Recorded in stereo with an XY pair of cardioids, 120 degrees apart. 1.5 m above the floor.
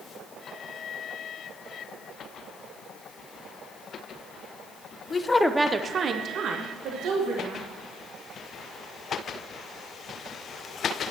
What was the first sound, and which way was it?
A woman speaking, 35° left.